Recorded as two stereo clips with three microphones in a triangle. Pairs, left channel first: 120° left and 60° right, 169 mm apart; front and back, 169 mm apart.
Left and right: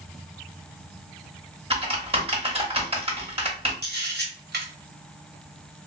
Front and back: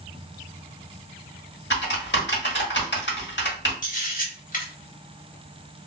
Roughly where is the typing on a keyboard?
Ahead.